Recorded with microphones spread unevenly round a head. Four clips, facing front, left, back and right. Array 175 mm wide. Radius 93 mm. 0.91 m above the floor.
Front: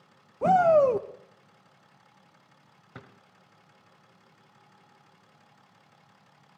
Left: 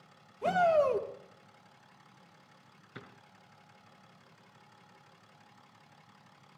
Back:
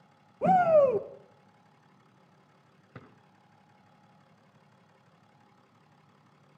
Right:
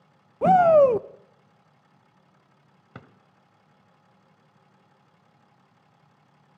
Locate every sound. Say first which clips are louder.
0.4 s a shout: right 11 dB, front 2 dB; 100° right, 0.6 m
3.0 s a drawer: right 3 dB, front 2 dB; 65° right, 1.3 m